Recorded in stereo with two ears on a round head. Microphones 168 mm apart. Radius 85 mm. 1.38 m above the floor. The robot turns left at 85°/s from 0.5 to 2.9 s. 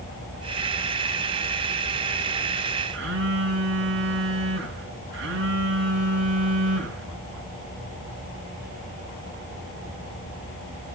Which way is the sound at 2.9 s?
60° right (ahead or behind).